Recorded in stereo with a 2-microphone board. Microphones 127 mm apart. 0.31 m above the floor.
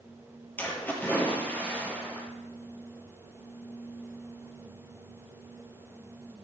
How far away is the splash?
About 4 m.